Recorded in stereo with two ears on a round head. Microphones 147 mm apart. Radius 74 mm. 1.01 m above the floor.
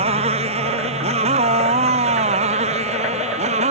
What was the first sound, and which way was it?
A motorcycle, 40° right (ahead or behind).